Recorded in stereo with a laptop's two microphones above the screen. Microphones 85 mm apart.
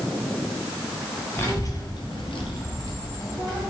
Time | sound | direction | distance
1.4 | a child speaking | 25° left (ahead or behind) | 0.7 m